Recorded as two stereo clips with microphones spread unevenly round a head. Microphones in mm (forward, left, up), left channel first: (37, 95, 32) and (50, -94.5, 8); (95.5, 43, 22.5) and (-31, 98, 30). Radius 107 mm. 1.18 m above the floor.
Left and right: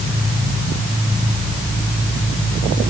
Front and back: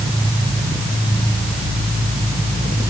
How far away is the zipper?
I don't hear a zipper.